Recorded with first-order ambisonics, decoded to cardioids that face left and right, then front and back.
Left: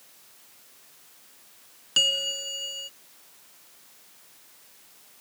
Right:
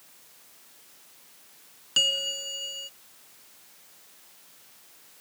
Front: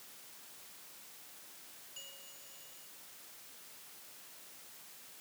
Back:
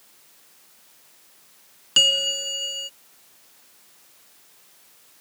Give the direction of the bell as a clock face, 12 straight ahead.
6 o'clock.